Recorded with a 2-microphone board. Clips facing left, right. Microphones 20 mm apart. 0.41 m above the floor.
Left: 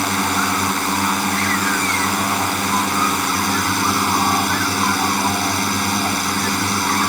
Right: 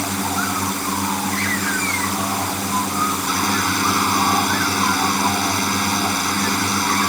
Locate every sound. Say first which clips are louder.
0.0 s a drone: left 4 dB; 45° left (ahead or behind)